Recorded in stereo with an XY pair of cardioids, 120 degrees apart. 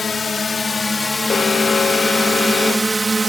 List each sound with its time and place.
0.0 s a drone: 30° left; by 3.3 s 20° right
1.3 s an alarm: 40° left